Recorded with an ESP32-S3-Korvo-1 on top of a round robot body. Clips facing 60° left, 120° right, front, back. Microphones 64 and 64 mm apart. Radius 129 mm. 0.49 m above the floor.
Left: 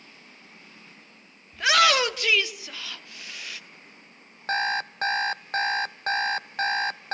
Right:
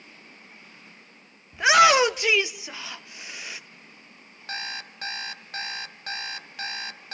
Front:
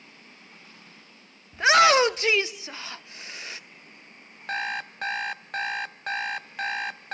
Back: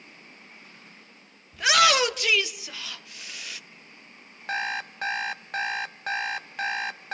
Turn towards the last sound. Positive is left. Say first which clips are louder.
# left 10 dB, back 1 dB
turn(degrees=90)